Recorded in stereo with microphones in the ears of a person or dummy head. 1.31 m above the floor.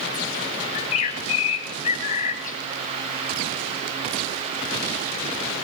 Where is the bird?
45° left (ahead or behind), 2.5 m.